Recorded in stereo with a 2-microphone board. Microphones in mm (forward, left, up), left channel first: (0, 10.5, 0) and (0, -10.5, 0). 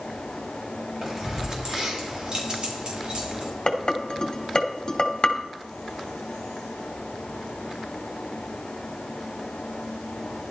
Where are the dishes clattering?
45° left (ahead or behind), 2 m.